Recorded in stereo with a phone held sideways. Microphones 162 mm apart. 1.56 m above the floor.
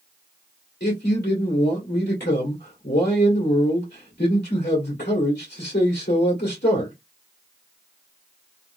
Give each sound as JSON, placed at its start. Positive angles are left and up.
{"t": 0.8, "sound": "a man speaking", "side_deg": 80, "distance_m": 2.0}